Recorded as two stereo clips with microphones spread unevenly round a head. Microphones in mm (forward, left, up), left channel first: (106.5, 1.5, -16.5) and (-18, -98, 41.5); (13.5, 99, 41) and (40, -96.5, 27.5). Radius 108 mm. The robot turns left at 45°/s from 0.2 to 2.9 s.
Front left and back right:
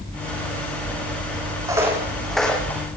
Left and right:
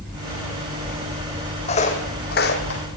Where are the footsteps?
155° left, 3 m; by 2.8 s 130° left, 3 m.